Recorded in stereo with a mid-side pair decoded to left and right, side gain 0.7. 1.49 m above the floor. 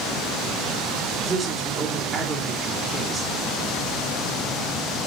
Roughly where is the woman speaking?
Ahead.